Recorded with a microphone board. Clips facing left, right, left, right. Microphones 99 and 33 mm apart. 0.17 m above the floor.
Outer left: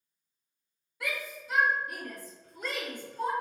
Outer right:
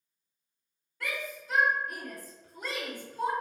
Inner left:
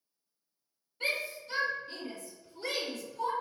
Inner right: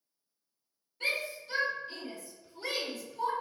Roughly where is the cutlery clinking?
No cutlery clinking in this recording.